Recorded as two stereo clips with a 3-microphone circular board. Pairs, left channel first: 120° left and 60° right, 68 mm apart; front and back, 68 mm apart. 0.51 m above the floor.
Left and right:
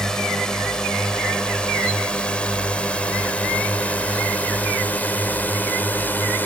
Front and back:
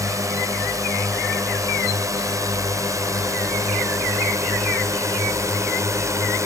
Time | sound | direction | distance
0.0 | a drone | 160° right | ?